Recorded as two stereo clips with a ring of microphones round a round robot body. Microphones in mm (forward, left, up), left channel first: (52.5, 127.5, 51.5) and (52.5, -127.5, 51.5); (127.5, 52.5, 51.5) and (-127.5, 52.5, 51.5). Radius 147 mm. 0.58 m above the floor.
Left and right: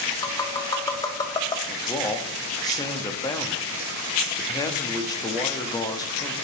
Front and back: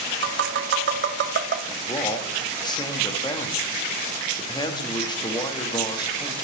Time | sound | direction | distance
0.2 | tapping | 160° left | 1.1 m
1.7 | a man speaking | 40° left | 1.2 m